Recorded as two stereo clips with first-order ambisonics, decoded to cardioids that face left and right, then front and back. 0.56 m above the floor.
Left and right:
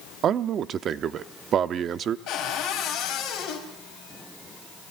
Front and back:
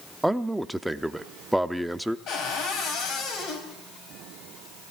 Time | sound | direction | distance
0.2 | a man speaking | 100° right | 0.6 m
2.3 | a cupboard door | 50° left | 4 m